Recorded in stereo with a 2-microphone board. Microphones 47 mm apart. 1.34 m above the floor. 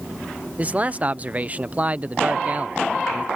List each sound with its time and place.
0.6 s a man speaking: 30° right (ahead or behind)